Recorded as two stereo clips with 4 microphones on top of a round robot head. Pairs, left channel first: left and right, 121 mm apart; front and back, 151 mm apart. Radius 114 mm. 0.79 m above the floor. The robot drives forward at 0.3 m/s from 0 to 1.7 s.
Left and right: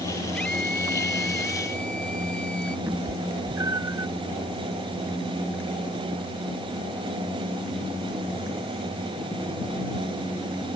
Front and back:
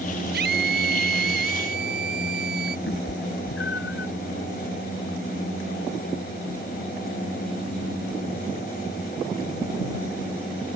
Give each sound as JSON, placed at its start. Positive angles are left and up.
{"t": 0.3, "sound": "a scream", "azimuth_deg": 175}
{"t": 2.9, "sound": "a cat meowing", "azimuth_deg": -30}